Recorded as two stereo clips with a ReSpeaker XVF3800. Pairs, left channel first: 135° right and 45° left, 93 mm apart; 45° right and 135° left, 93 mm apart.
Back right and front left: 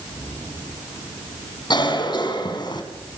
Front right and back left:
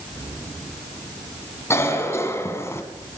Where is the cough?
105° right, 3.5 m.